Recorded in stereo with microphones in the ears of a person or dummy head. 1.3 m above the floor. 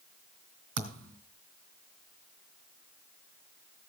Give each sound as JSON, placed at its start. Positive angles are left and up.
{"t": 0.8, "sound": "a thud", "side_deg": -70, "distance_m": 2.5}